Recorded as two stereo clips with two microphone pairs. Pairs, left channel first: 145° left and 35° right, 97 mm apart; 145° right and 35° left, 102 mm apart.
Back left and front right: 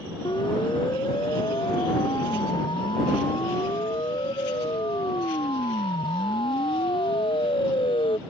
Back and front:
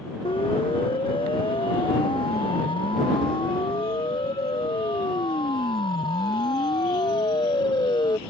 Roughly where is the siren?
Behind.